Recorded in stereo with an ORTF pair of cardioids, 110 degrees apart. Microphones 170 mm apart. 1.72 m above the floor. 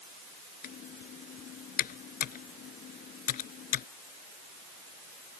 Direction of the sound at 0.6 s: 60° left.